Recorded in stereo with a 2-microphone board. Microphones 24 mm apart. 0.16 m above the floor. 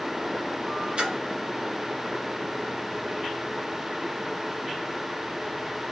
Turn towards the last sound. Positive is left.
turn(degrees=-40)  # may be behind; listen again after turning